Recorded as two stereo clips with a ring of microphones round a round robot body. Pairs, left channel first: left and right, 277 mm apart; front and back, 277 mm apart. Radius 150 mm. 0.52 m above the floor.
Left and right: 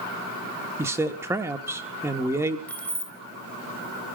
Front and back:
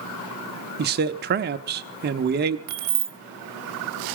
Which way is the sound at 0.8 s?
165° right.